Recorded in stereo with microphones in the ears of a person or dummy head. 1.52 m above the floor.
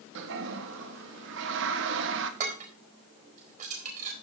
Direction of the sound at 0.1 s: 65° right (ahead or behind).